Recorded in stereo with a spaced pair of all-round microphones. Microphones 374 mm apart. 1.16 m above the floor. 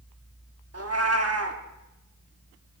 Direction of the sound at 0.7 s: 40° right (ahead or behind).